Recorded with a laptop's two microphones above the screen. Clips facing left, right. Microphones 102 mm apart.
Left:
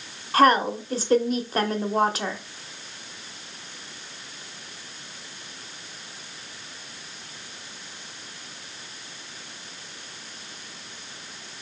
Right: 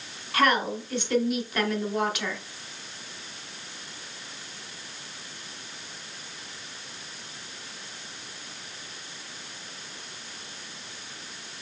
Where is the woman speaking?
35° left (ahead or behind), 0.8 m.